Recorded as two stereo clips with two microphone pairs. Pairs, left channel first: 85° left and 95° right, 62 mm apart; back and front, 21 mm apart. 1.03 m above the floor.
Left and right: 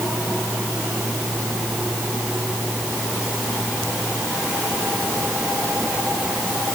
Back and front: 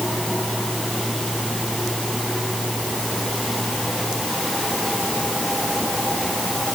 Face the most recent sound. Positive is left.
No sound to turn to.